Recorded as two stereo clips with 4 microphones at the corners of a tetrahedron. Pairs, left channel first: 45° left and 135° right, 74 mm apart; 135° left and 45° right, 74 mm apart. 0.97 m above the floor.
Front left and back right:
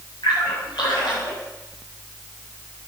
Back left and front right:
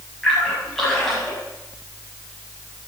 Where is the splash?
50° left, 7 m.